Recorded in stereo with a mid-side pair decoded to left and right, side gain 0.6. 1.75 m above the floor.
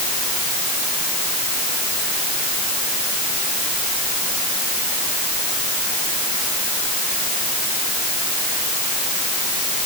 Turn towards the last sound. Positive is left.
No sound to turn to.